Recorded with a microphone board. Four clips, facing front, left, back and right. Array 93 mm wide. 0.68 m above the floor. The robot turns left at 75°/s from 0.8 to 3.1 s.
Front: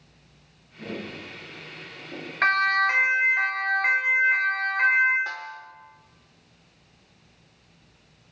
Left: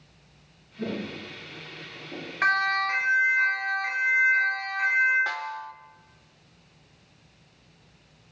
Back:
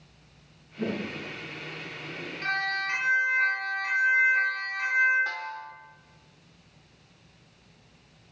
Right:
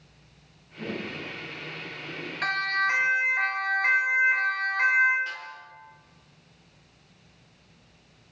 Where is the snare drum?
85° left, 1.0 m.